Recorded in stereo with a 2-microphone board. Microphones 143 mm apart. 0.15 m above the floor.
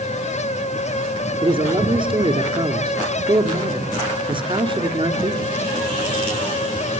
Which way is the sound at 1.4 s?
35° right (ahead or behind).